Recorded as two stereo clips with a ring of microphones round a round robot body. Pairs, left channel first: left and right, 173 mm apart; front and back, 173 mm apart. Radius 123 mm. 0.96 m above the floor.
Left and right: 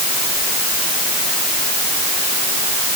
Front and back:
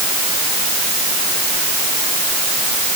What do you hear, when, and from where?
Only background noise.